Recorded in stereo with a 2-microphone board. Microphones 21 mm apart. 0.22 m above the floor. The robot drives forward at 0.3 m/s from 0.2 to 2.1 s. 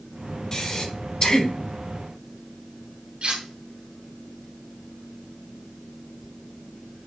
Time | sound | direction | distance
0.5 | breathing | 30° left (ahead or behind) | 0.8 m
3.2 | cutlery clinking | 55° right (ahead or behind) | 1.7 m